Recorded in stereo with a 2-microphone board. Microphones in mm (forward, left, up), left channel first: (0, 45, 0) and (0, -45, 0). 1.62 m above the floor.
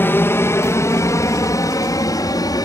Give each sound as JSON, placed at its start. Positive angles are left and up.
{"t": 0.0, "sound": "an aircraft", "side_deg": 25}